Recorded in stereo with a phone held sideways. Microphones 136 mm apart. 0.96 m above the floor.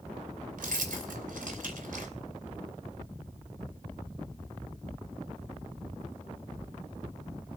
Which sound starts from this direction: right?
Keys jangling, at 0.6 s.